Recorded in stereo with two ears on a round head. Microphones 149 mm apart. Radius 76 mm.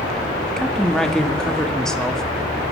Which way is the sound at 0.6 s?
5° left (ahead or behind).